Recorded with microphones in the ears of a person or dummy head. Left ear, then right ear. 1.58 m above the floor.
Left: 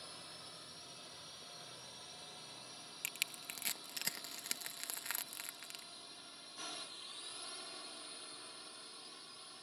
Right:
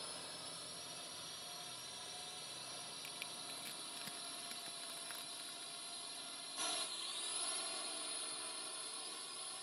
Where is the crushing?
40° left (ahead or behind).